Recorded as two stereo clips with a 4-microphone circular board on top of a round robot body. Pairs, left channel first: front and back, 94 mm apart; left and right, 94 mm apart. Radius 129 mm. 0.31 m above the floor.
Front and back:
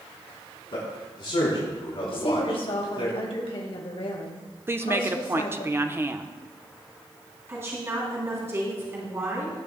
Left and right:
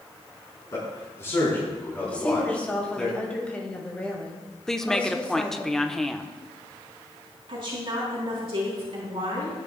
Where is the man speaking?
35° left, 4 m; by 3.1 s 5° left, 3.5 m.